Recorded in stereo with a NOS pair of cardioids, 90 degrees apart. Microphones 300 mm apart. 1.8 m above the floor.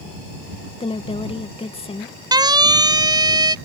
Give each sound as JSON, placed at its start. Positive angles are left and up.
{"t": 0.8, "sound": "a woman speaking", "azimuth_deg": 20}
{"t": 2.3, "sound": "a siren", "azimuth_deg": -15}